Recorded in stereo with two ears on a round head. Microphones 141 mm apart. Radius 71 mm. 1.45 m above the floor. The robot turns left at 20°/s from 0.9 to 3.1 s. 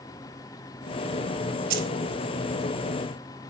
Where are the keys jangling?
65° right (ahead or behind), 4.5 m; by 1.9 s 70° right (ahead or behind), 4.5 m.